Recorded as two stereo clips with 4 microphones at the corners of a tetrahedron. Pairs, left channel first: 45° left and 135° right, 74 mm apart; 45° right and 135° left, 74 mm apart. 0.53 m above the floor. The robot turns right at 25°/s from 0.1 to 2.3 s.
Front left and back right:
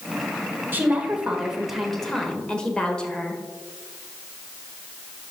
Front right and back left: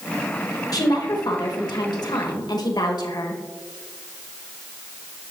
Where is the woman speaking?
75° right, 1.8 m; by 3.4 s 35° right, 1.8 m.